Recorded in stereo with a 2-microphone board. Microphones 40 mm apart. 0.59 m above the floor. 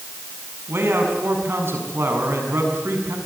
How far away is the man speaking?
About 6.5 m.